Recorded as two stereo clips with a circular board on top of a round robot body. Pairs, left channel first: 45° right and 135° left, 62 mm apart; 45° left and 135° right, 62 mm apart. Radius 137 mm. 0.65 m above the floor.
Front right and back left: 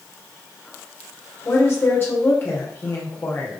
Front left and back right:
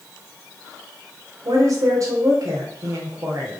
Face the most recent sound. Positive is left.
turn(degrees=-100)